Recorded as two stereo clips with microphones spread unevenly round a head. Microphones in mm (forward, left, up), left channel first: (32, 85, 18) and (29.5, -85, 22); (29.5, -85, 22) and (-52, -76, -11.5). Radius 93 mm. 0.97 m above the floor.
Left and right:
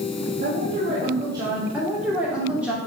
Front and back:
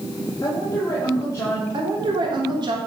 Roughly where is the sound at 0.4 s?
Ahead right.